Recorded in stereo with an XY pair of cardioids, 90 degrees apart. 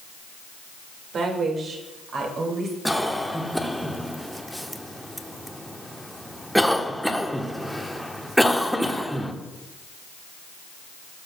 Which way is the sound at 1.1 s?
65° right.